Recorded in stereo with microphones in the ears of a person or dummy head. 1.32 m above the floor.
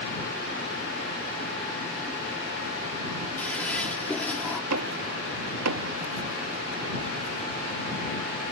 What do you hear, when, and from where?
3.4 s a toilet flushing: 10° left (ahead or behind)
4.7 s knocking: 80° right